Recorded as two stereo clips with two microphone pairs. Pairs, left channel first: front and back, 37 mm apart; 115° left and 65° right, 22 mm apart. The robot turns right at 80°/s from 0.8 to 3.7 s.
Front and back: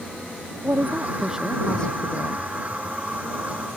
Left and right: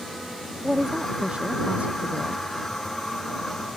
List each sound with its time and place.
0.6 s a woman speaking: 145° right; by 2.5 s 10° right